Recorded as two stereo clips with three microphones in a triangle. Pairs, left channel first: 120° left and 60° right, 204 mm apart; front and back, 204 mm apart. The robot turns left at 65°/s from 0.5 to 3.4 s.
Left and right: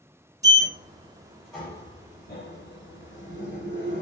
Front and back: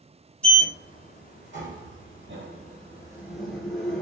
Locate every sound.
0.4 s a sliding door: 85° right, 1.2 m; by 4.0 s 85° left, 1.2 m